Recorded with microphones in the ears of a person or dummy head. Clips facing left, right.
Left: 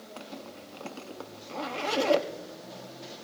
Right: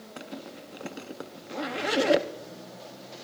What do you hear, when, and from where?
0.2 s a zipper: 15° right (ahead or behind), 0.6 m